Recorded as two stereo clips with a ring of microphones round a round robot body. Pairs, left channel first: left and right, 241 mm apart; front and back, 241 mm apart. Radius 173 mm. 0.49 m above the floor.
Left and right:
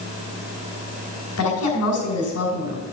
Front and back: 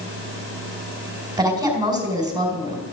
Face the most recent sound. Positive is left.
turn(degrees=105)